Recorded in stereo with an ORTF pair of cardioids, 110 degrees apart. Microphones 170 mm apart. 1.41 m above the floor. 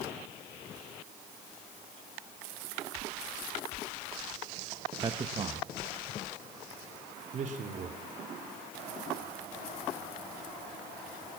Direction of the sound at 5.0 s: 25° right.